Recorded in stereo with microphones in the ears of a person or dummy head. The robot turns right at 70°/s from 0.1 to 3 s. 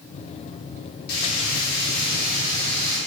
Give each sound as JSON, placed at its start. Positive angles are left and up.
{"t": 1.1, "sound": "frying", "azimuth_deg": 55, "distance_m": 4.0}